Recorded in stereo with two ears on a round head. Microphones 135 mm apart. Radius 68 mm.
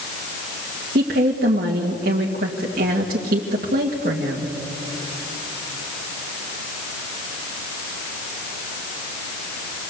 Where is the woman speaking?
60° right (ahead or behind), 2 m.